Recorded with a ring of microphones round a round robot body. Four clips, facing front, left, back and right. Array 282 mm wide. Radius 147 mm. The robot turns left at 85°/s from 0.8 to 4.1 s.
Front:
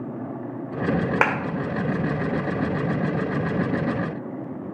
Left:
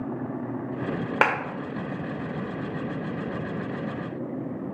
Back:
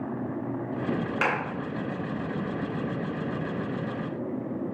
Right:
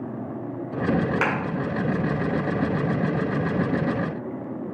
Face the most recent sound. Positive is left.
turn(degrees=145)